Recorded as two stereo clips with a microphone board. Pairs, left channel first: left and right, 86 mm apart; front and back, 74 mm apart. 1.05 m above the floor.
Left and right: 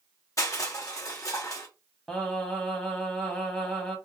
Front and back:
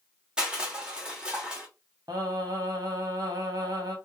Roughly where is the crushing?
Left.